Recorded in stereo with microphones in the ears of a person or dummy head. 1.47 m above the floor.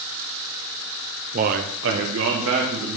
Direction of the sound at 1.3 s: 35° right (ahead or behind).